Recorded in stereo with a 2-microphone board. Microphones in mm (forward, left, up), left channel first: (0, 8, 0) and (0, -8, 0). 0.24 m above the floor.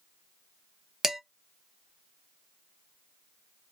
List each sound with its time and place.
1.0 s dishes clattering: 25° right (ahead or behind), 0.7 m